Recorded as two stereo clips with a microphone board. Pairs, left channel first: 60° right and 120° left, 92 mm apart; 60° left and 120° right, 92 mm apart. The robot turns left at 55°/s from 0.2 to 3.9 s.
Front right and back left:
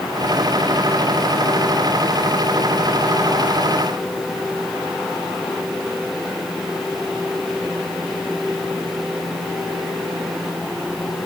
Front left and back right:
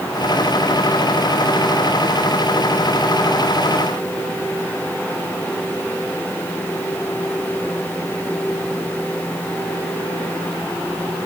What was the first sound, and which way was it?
Only background noise.